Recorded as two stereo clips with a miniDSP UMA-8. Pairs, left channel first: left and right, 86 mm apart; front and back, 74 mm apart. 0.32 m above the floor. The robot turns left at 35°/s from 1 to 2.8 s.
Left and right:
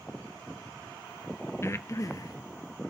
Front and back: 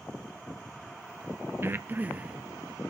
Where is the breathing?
135° left, 0.6 m; by 2.4 s 110° left, 0.6 m.